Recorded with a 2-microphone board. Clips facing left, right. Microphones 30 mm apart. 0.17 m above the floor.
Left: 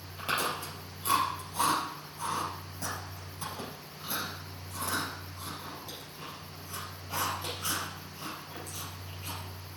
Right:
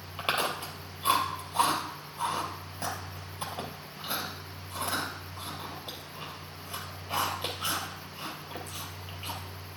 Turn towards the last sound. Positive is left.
turn(degrees=-40)  # may be behind; listen again after turning